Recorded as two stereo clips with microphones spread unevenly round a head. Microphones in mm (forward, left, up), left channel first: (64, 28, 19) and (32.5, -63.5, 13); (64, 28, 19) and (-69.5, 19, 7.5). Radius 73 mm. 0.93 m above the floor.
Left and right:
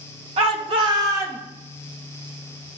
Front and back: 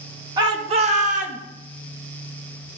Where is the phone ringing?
I don't hear a phone ringing.